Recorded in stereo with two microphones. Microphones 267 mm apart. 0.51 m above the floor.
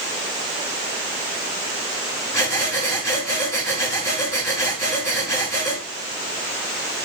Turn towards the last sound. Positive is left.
turn(degrees=10)  # may be behind; listen again after turning